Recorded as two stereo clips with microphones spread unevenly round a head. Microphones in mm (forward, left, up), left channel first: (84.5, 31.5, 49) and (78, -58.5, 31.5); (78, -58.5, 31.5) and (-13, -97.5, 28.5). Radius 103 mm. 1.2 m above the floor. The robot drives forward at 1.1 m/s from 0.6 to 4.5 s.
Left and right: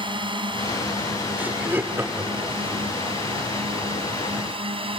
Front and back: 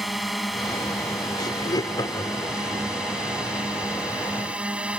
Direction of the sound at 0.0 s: 65° right.